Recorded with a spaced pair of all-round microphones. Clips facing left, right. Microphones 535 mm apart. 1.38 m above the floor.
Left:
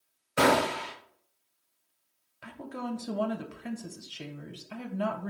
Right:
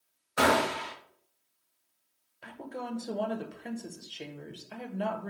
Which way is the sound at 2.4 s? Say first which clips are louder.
Left 3 dB; 35° left (ahead or behind).